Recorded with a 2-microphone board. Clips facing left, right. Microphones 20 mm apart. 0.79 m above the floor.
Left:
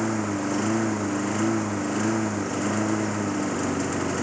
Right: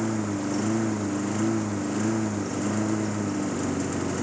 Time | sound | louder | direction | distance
0.0 | a lawn mower | left 2 dB | 20° left (ahead or behind) | ?